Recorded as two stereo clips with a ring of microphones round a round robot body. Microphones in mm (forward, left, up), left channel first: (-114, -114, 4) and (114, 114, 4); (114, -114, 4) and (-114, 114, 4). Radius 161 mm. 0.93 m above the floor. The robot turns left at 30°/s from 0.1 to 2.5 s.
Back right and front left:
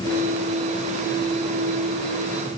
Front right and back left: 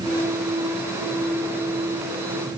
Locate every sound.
Only background noise.